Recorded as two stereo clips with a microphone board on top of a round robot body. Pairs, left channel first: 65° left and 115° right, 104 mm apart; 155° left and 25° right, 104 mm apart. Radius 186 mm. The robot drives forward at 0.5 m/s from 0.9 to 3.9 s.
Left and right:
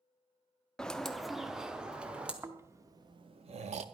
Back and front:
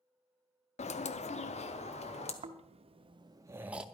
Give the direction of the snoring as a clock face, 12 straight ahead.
1 o'clock.